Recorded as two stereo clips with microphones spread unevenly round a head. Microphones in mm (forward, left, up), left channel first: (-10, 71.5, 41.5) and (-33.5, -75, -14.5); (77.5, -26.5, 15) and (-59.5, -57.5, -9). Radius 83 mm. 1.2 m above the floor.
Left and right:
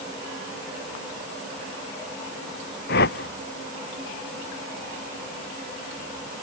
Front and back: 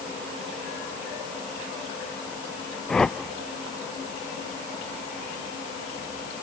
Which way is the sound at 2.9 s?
100° left.